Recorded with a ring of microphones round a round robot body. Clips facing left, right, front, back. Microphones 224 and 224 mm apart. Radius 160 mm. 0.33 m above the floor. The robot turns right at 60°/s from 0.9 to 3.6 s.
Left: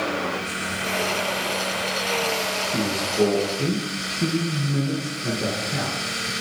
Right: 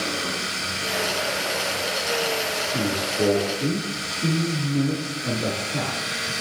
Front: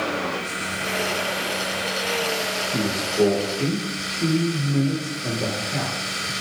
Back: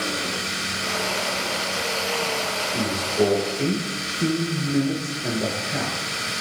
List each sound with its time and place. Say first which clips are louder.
2.7 s a man speaking: left 3 dB, front 1 dB; 45° left, 6 m; by 6.3 s 100° left, 6 m